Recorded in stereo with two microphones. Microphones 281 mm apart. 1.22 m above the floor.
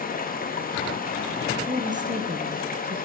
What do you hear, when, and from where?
0.0 s running water: 30° left (ahead or behind), 0.8 m
1.7 s a woman speaking: 25° right (ahead or behind), 0.9 m